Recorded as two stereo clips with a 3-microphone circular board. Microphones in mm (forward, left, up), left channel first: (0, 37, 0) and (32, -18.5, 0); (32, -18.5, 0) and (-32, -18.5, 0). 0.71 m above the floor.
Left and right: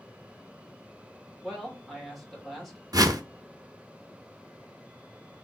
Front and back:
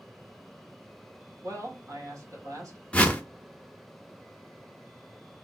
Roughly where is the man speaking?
Behind right.